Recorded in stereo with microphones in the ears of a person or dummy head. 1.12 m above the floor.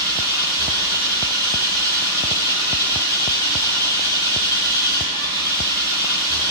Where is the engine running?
25° left (ahead or behind), 4.5 m.